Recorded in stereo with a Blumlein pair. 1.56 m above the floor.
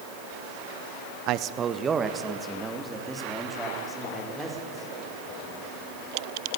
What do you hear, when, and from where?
1.3 s a man speaking: 40° right, 0.8 m; by 5.8 s straight ahead, 6.5 m